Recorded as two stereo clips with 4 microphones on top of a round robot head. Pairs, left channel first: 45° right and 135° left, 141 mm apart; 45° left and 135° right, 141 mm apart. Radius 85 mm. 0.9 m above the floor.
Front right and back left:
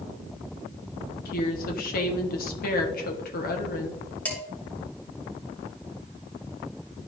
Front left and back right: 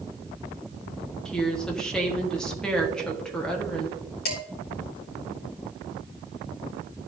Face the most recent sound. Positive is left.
turn(degrees=35)